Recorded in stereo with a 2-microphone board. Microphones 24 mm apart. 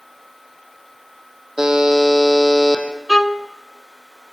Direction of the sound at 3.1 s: 20° left (ahead or behind).